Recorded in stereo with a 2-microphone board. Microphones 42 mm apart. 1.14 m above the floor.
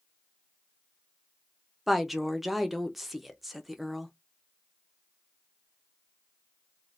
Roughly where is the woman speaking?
Centre.